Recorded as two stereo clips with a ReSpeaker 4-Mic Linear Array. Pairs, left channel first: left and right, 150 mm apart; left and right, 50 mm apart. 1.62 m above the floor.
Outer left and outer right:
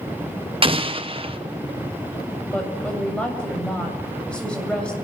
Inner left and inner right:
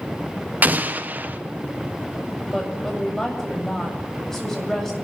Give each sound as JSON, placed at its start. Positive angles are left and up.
{"t": 0.6, "sound": "an explosion", "side_deg": -40, "distance_m": 1.4}
{"t": 2.5, "sound": "a woman speaking", "side_deg": 5, "distance_m": 8.0}